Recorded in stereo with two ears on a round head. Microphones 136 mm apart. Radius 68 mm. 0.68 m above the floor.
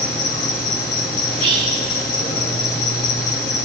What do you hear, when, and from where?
0.0 s an insect: 50° left (ahead or behind), 2.0 m
1.3 s whispering: 35° right (ahead or behind), 3.5 m